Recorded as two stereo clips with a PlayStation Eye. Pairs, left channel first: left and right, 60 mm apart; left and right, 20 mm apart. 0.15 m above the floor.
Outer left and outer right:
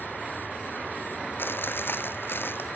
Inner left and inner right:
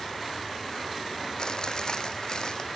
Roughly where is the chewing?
Left.